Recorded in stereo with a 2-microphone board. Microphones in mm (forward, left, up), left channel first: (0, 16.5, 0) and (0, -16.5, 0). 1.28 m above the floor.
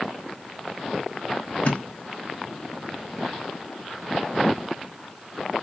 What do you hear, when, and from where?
1.6 s a thud: 45° left (ahead or behind), 1.0 m